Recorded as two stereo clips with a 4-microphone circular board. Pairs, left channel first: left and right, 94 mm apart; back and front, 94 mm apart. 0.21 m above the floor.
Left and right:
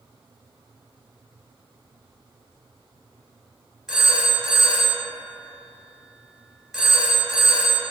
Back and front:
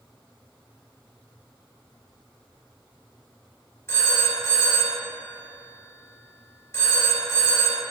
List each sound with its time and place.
3.9 s a phone ringing: 175° right, 0.8 m